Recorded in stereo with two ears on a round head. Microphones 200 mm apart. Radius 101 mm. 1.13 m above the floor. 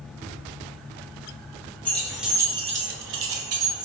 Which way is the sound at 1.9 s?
10° left (ahead or behind).